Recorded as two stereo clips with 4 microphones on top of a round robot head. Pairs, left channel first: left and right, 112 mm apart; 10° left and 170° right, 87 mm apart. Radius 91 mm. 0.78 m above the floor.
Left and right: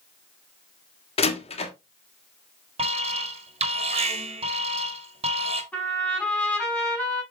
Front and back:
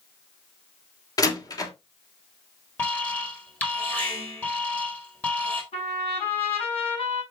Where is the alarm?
60° right, 1.7 m.